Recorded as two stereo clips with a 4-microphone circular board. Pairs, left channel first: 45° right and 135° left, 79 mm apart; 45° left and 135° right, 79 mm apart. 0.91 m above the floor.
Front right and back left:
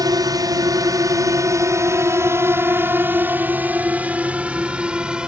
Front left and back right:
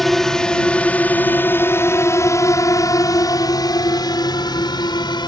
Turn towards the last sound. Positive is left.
turn(degrees=55)